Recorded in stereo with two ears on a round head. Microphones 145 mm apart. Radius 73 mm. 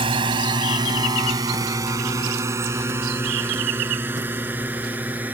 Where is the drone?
30° right (ahead or behind); by 5.3 s 10° right (ahead or behind).